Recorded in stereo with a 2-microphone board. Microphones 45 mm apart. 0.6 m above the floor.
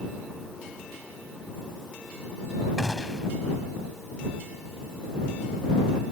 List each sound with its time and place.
2.8 s a gunshot: 5° right (ahead or behind)